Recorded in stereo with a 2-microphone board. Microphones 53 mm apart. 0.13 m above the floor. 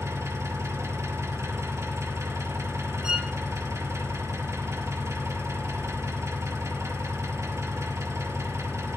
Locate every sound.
0.0 s an engine running: 65° right (ahead or behind), 3 m
3.0 s a violin: 10° right (ahead or behind), 1.0 m